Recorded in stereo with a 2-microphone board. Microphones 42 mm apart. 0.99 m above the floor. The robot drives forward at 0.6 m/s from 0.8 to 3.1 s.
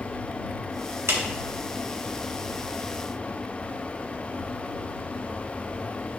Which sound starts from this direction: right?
A clap, at 1.1 s.